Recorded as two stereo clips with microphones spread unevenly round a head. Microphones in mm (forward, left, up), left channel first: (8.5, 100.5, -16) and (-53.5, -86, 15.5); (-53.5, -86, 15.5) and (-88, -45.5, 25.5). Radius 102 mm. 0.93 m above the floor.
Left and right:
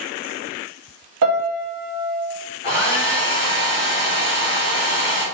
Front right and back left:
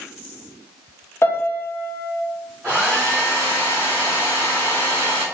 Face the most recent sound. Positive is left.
turn(degrees=60)